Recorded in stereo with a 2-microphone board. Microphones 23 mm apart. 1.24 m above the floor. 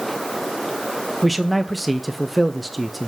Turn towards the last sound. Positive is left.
turn(degrees=-5)  # may be behind; listen again after turning